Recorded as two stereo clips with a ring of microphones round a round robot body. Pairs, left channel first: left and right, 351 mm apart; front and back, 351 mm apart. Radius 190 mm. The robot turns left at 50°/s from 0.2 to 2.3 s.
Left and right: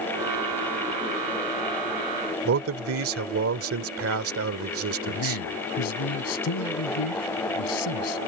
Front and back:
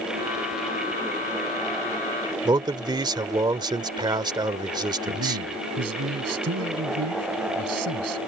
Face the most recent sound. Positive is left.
turn(degrees=130)